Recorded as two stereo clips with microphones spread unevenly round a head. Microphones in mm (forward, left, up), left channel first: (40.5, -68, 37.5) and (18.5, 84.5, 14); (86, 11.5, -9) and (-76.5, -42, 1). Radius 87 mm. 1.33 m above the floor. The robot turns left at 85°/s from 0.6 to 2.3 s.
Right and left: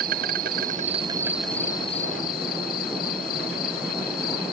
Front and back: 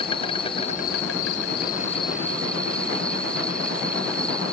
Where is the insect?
80° left; by 4.5 s 65° right.